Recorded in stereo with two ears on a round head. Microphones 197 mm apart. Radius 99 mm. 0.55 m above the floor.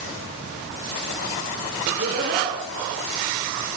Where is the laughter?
45° right (ahead or behind), 8.5 m.